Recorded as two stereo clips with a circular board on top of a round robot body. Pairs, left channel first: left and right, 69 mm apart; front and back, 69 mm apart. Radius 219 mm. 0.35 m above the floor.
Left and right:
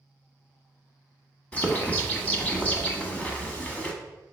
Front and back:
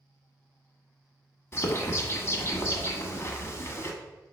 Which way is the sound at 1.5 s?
30° left.